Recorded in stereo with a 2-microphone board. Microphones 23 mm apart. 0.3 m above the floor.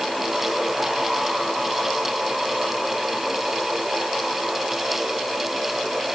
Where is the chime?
I don't hear a chime.